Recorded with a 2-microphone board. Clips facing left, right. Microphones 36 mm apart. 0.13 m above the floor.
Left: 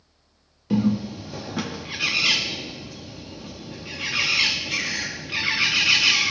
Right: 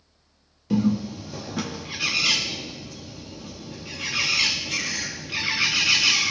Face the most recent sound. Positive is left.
turn(degrees=15)  # may be behind; listen again after turning